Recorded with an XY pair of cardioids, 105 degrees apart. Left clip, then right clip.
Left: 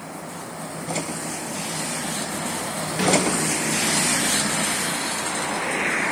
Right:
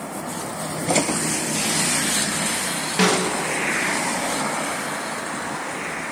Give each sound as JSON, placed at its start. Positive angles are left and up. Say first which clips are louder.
{"t": 3.0, "sound": "a snare drum", "louder": "right 1 dB", "azimuth_deg": -50, "distance_m": 1.9}